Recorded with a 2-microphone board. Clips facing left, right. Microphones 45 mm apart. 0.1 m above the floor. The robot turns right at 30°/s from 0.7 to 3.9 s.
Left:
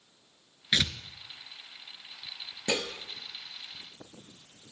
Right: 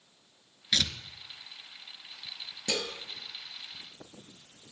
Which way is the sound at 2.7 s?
25° left (ahead or behind).